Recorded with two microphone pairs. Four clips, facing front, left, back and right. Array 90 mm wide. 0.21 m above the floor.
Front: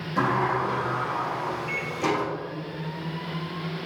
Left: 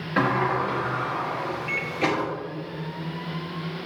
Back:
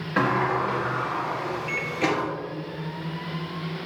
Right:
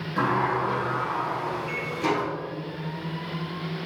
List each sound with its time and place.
0.2 s a sliding door: 140° left, 2.0 m
1.7 s a microwave: 140° left, 0.9 m